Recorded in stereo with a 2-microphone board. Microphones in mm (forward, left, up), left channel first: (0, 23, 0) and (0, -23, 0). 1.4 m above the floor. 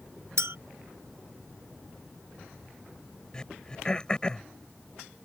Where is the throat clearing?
20° left (ahead or behind).